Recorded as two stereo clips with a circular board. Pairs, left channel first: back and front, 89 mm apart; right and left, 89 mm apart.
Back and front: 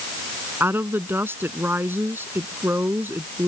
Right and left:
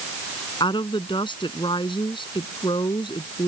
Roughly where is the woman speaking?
Ahead right.